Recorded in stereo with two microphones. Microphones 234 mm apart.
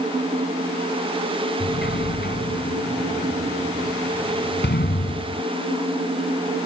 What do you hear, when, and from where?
1.6 s a sliding door: 45° left (ahead or behind)